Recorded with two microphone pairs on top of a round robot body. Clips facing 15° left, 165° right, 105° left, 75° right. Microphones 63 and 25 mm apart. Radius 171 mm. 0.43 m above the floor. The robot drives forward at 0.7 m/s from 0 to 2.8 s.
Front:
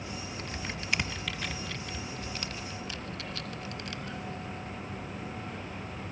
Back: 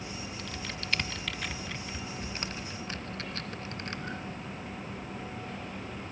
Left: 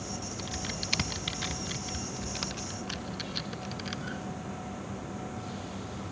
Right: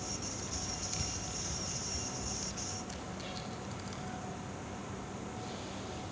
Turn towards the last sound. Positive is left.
turn(degrees=140)